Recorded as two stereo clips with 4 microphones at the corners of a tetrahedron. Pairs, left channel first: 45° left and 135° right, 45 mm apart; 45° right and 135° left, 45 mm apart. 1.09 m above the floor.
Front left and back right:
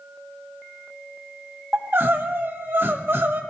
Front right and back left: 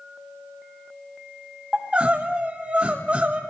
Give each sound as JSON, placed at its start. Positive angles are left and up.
{"t": 1.7, "sound": "crying", "azimuth_deg": -170, "distance_m": 1.4}